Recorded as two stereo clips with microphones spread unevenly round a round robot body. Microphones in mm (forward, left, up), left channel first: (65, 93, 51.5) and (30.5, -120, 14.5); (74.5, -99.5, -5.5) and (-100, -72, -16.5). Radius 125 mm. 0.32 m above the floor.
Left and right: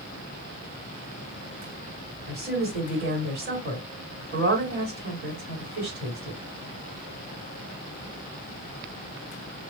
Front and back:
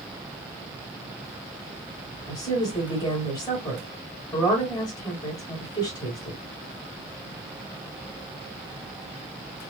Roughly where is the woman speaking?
Right.